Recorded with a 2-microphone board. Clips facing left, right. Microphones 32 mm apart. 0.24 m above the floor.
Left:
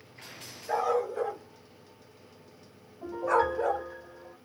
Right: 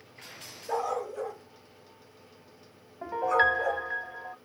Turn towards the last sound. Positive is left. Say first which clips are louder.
# right 2 dB
turn(degrees=-50)  # may be behind; listen again after turning